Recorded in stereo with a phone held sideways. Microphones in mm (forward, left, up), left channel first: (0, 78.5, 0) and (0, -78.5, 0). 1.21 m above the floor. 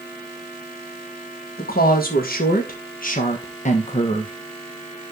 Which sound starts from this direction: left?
A woman speaking, at 1.6 s.